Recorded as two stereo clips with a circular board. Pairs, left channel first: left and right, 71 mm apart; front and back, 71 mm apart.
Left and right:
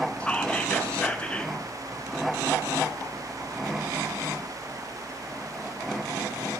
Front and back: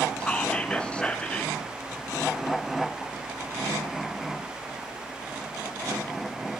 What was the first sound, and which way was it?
Whispering, 45° left.